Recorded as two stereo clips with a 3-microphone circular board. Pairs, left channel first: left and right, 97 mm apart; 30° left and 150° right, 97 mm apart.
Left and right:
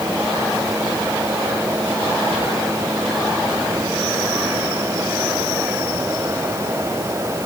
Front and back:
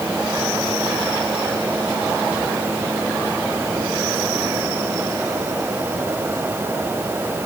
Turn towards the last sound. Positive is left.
No sound to turn to.